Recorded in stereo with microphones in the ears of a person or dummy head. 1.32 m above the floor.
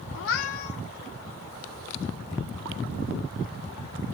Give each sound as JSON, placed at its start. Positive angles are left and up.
{"t": 0.1, "sound": "a cat meowing", "side_deg": 70, "distance_m": 1.3}